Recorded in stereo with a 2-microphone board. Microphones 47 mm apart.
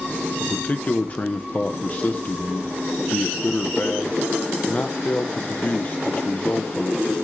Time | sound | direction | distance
0.4 | a man speaking | 35° left (ahead or behind) | 0.6 m